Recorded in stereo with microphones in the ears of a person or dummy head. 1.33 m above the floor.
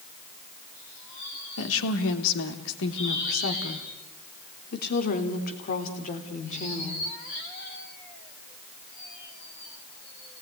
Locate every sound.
1.6 s a woman speaking: 85° left, 3 m; by 7.1 s 40° left (ahead or behind), 3.5 m